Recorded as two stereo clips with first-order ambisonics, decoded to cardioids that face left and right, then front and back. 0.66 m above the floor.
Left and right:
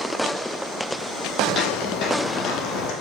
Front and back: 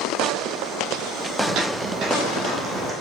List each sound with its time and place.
1.4 s footsteps: 150° left, 1.4 m; by 2.9 s 115° left, 1.8 m